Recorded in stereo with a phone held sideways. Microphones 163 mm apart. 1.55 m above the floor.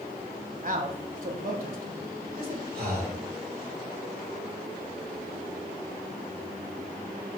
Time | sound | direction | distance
0.6 | a man speaking | 60° right (ahead or behind) | 1.8 m
2.8 | breathing | 75° right (ahead or behind) | 5 m